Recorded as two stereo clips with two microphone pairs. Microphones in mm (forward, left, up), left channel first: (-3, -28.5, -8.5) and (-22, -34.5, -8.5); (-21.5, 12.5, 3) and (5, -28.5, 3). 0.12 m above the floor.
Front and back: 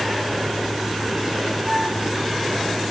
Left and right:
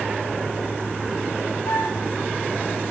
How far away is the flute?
About 9 m.